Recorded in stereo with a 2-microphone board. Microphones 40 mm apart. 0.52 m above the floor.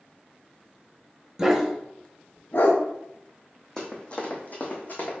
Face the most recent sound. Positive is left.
turn(degrees=60)  # may be behind; listen again after turning